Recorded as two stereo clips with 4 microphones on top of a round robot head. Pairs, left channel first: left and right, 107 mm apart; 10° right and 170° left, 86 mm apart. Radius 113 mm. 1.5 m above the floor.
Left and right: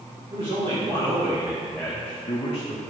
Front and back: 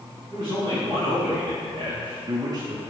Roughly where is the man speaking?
Behind right.